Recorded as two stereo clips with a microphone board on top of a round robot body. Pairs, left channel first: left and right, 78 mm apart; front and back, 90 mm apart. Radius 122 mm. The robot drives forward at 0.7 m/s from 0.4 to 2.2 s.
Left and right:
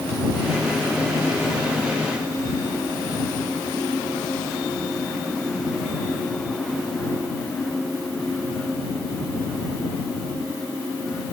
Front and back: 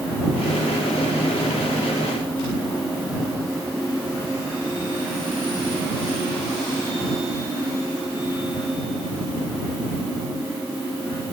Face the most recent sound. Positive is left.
No sound to turn to.